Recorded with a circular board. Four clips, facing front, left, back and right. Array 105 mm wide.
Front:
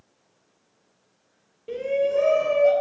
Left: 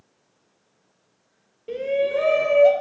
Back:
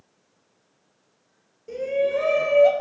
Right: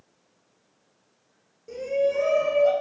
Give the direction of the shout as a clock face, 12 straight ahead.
10 o'clock.